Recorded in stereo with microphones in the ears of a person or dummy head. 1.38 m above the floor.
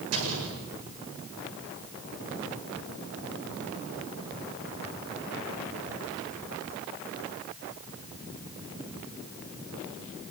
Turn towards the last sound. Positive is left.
turn(degrees=-85)